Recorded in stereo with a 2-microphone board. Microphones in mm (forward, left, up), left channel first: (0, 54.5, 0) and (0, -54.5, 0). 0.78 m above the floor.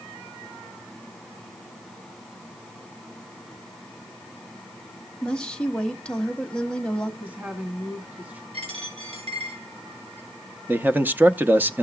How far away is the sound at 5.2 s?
About 1.1 m.